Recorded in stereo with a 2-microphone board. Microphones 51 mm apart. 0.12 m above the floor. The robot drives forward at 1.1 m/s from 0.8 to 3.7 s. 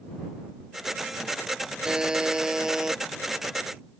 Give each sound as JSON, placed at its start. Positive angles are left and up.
{"t": 1.9, "sound": "a buzzer", "side_deg": -15}